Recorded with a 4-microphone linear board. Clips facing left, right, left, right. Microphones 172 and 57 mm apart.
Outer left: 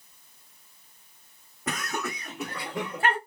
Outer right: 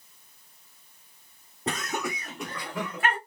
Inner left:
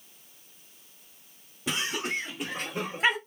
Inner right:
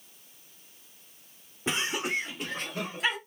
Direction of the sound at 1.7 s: 30° right (ahead or behind).